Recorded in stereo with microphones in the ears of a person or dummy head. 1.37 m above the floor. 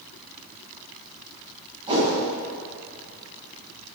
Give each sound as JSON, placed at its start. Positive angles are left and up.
{"t": 1.9, "sound": "a whoosh", "side_deg": -25, "distance_m": 7.0}